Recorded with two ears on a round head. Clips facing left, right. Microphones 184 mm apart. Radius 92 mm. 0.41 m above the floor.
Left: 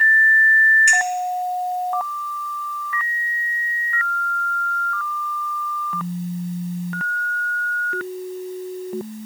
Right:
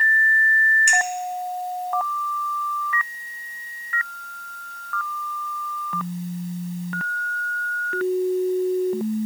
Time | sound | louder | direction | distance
0.9 | a clink | right 1 dB | 45° right (ahead or behind) | 1.4 m